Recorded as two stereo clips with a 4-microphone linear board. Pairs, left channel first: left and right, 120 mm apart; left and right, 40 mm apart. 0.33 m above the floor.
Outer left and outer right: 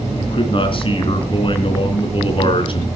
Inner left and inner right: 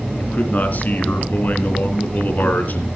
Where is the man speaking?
45° left (ahead or behind), 3.5 m.